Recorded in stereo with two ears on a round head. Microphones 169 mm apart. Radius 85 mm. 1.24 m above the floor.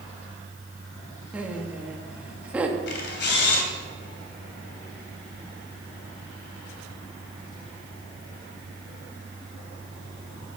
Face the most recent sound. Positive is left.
turn(degrees=60)  # may be behind; listen again after turning